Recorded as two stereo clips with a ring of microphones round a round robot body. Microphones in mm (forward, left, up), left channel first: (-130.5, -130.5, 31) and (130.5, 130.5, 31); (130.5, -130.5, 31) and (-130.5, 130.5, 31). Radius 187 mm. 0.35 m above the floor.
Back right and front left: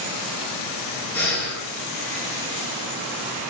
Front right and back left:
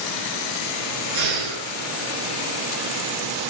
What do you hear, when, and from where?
1.1 s breathing: 140° left, 5 m